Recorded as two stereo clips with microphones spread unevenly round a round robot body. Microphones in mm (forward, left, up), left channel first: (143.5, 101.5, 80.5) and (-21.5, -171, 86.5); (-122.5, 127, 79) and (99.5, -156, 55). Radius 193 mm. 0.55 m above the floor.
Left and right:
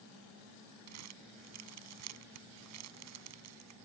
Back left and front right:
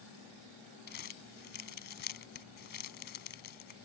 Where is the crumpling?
170° right.